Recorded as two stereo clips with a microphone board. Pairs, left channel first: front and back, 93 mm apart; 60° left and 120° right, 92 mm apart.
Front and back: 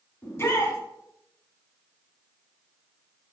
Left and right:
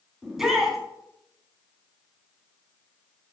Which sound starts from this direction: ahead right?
A shout, at 0.2 s.